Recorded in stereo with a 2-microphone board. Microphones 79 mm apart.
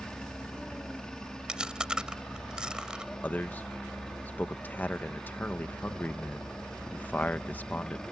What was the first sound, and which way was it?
A helicopter, 10° left (ahead or behind).